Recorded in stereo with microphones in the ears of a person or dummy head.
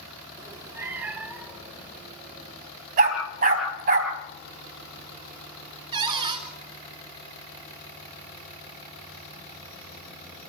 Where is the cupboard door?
20° right (ahead or behind), 4 m.